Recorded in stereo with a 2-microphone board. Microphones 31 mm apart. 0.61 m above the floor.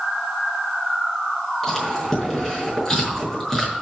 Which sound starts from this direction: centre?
Chewing, at 1.6 s.